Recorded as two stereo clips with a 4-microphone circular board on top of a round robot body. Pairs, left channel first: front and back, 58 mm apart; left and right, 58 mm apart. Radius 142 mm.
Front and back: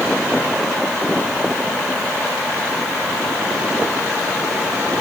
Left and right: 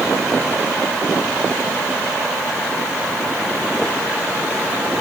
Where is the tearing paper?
No tearing paper in this recording.